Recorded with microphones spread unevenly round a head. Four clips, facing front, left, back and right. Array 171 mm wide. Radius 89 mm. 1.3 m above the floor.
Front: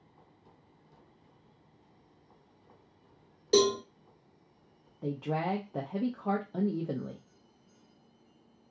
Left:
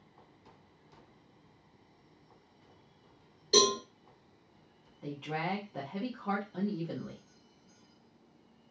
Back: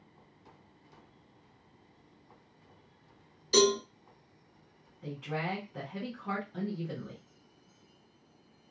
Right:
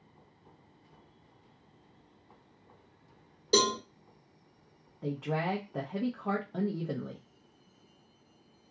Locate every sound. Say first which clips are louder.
3.5 s a cowbell: even, front 1 dB; 30° right, 1.3 m
5.0 s a woman speaking: right 4 dB, front 4 dB; 25° right, 0.5 m